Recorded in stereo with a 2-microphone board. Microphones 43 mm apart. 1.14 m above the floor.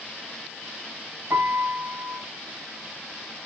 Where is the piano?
70° right (ahead or behind), 3.5 m.